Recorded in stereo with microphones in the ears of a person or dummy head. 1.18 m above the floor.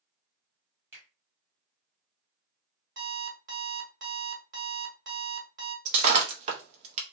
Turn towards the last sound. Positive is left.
turn(degrees=-40)  # may be behind; listen again after turning